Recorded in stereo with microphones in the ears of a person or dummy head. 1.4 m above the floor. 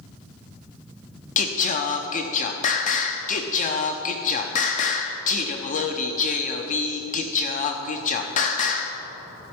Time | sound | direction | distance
1.4 | singing | 45° left (ahead or behind) | 0.6 m